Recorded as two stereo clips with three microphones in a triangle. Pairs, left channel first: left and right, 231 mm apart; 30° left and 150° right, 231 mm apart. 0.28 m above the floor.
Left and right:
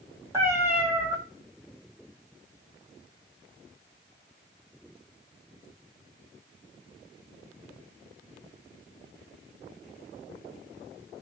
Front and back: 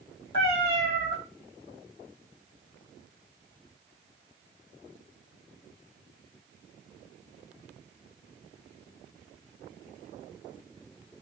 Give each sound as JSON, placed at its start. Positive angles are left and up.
{"t": 0.3, "sound": "a cat meowing", "azimuth_deg": -10, "distance_m": 1.6}